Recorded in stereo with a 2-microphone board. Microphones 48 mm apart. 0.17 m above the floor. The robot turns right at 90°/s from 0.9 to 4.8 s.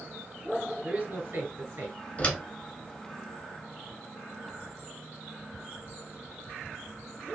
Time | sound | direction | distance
0.8 | a man speaking | 140° right | 2 m
2.2 | a door slam | 30° left (ahead or behind) | 1.2 m